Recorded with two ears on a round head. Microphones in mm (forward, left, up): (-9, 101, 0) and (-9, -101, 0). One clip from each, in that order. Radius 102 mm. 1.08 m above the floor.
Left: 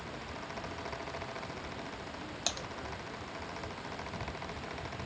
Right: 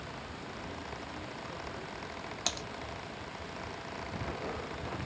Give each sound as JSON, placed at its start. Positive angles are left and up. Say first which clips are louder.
{"t": 2.5, "sound": "typing on a keyboard", "louder": "right 1 dB", "side_deg": -5}